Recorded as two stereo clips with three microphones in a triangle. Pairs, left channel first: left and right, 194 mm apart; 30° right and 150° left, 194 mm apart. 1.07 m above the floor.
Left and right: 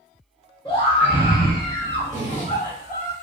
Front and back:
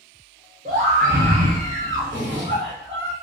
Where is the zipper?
140° left, 0.9 m.